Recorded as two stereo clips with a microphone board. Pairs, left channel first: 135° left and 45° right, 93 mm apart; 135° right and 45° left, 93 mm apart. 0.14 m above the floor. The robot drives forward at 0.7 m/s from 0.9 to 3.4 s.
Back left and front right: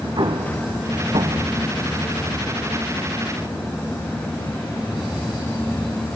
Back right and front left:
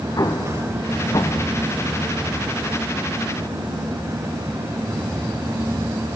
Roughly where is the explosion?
Right.